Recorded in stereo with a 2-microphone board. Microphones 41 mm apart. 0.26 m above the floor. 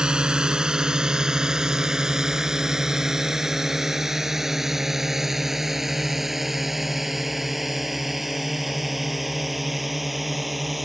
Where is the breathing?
I don't hear breathing.